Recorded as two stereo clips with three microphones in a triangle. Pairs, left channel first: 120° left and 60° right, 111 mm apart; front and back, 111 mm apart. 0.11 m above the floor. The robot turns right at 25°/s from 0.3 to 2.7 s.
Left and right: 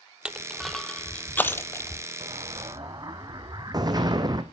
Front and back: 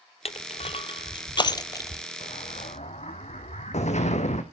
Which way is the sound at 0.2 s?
20° left.